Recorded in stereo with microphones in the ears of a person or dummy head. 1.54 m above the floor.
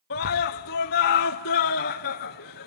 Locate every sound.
0.1 s a scream: 55° left (ahead or behind), 0.5 m